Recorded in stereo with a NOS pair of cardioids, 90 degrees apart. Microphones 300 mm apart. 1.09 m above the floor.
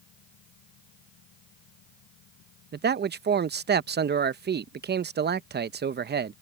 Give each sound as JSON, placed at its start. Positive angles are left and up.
{"t": 0.0, "sound": "a fan", "azimuth_deg": 70}
{"t": 2.7, "sound": "a man speaking", "azimuth_deg": -35}